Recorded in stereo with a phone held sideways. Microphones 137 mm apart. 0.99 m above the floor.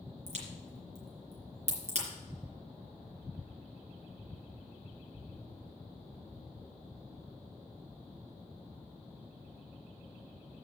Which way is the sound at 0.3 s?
55° right (ahead or behind).